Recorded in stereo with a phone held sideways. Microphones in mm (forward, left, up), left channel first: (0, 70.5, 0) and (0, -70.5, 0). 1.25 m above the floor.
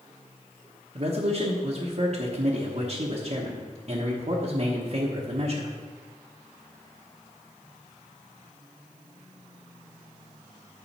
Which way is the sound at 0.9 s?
50° right (ahead or behind).